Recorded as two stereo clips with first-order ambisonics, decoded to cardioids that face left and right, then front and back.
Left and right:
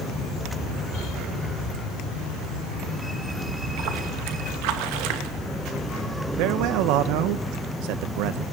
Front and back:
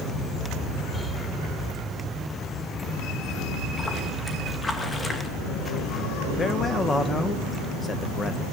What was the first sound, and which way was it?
A splash, 80° right.